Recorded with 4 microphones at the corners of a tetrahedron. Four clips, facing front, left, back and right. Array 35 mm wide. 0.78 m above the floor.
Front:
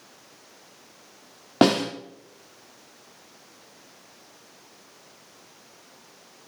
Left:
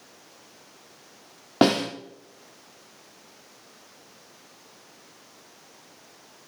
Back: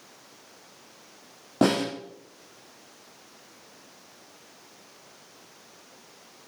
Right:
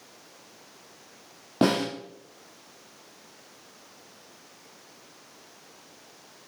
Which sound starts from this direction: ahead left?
A snare drum, at 1.6 s.